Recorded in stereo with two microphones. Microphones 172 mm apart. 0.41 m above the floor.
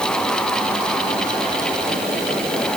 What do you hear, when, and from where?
Only background noise.